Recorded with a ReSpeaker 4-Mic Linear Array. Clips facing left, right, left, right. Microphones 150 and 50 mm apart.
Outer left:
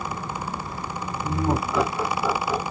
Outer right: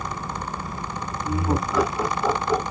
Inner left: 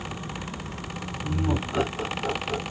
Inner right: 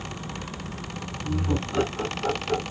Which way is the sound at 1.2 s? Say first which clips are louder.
Even, even; 30° left (ahead or behind).